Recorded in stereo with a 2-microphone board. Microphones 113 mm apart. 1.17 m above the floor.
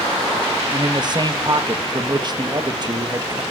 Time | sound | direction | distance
0.7 | a man speaking | 40° right (ahead or behind) | 1.2 m